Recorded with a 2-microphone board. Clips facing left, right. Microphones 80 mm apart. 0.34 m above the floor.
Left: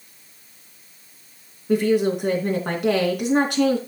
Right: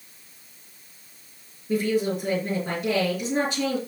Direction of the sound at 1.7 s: 65° left (ahead or behind).